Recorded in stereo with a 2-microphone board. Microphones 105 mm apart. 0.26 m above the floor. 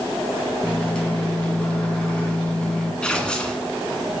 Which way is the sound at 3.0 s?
10° left (ahead or behind).